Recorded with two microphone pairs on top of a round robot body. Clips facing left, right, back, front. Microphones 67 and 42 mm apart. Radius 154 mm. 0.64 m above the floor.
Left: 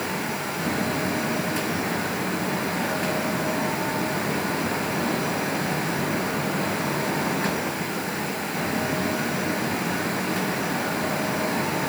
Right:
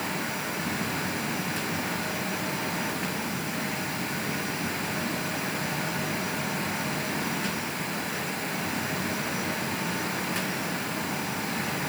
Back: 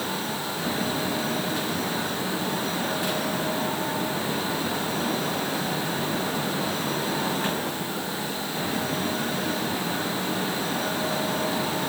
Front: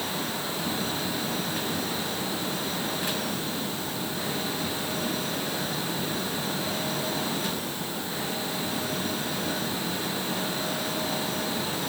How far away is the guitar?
I don't hear a guitar.